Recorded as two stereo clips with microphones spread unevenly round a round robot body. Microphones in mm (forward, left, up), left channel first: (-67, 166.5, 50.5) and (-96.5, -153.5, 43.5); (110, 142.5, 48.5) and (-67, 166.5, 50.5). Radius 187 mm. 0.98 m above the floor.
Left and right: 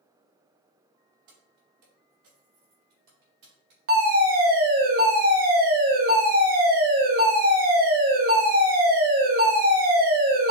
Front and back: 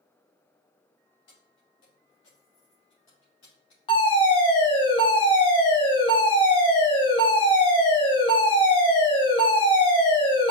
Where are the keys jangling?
40° right, 1.8 m; by 3.8 s 50° right, 3.5 m.